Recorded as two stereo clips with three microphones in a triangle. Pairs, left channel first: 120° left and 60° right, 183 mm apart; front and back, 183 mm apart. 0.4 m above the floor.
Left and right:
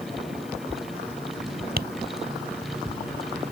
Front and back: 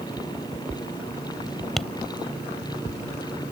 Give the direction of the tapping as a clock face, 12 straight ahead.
3 o'clock.